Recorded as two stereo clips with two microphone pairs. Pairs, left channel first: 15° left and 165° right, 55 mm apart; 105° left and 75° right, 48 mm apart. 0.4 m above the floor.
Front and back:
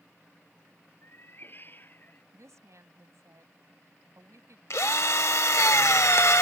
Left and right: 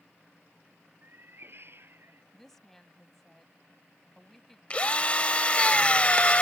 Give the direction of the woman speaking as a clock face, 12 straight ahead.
6 o'clock.